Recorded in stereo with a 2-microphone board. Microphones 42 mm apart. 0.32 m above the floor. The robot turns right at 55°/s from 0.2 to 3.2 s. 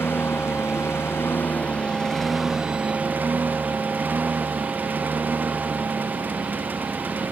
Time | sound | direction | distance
0.0 | a lawn mower | 65° left | ?